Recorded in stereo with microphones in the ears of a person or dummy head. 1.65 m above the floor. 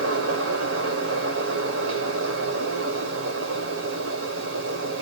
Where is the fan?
85° right, 1.3 m.